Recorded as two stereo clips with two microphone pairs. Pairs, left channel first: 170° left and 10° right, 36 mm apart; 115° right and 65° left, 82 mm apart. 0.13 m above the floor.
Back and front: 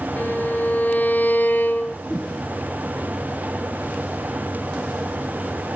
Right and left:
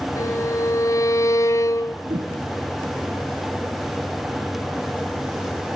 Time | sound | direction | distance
0.2 | a violin | 165° right | 2 m
2.0 | a whoosh | 95° left | 5.5 m